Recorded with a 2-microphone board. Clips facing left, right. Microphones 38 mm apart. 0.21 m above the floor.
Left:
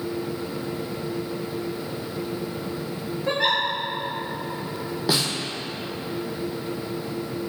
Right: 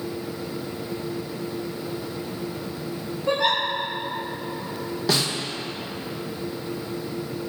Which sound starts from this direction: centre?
A snare drum, at 5.1 s.